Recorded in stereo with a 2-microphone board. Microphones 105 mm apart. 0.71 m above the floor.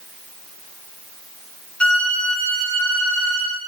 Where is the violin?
10° left (ahead or behind), 1.6 m.